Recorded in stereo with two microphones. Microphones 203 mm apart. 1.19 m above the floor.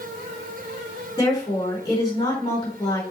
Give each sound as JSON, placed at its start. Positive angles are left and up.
{"t": 1.2, "sound": "a woman speaking", "side_deg": 20, "distance_m": 4.5}